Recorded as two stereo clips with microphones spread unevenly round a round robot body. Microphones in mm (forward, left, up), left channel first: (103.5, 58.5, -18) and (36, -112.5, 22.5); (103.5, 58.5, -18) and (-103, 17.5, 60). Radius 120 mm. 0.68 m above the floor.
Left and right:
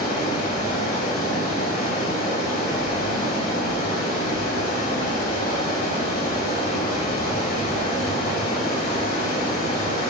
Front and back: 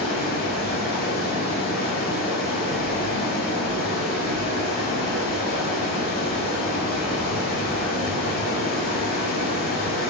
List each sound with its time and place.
0.0 s running water: 40° left, 1.5 m